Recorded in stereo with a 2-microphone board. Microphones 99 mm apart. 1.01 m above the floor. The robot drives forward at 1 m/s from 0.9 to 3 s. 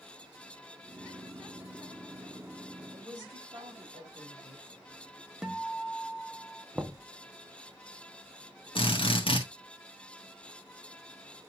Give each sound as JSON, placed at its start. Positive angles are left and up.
{"t": 2.9, "sound": "a woman speaking", "side_deg": -50, "distance_m": 2.5}
{"t": 5.4, "sound": "a guitar", "side_deg": -5, "distance_m": 0.8}
{"t": 6.8, "sound": "knocking", "side_deg": -10, "distance_m": 0.7}
{"t": 8.8, "sound": "a drill", "side_deg": 65, "distance_m": 1.6}